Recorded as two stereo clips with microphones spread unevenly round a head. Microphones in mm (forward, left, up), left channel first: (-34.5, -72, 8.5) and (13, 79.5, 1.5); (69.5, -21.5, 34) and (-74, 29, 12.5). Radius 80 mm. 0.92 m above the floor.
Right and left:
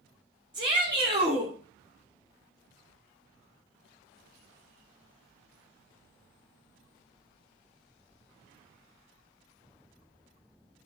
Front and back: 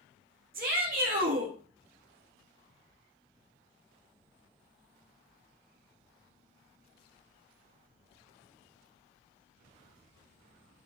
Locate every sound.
0.5 s a shout: 135° left, 3 m